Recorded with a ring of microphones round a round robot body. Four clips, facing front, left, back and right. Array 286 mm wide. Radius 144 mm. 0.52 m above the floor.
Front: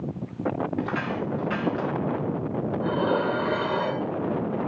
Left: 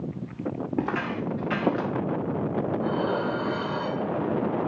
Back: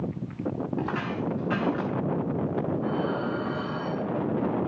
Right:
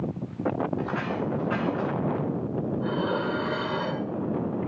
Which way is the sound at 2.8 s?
10° right.